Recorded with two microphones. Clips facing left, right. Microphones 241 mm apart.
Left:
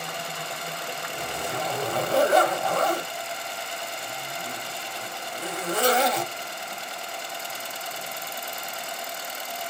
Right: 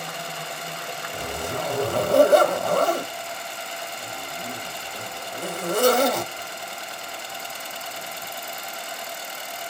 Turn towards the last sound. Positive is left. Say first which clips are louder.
# right 3 dB
turn(degrees=-50)  # may be behind; listen again after turning